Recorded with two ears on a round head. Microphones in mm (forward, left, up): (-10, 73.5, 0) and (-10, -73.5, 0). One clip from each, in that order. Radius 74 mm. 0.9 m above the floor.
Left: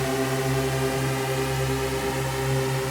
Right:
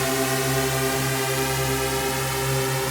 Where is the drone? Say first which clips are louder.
Right 2 dB; 45° right (ahead or behind); by 2.9 s 40° right (ahead or behind).